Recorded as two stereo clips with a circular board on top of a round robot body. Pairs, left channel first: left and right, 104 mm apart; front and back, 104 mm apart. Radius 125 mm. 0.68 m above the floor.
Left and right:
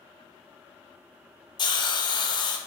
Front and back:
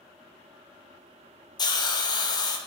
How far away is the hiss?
About 1.0 m.